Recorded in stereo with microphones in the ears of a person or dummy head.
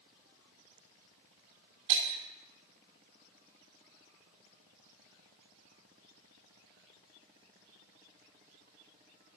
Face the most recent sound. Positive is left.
turn(degrees=-40)  # may be behind; listen again after turning